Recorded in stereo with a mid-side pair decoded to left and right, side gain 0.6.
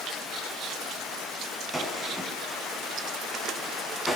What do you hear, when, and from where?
1.7 s a gunshot: straight ahead, 9 m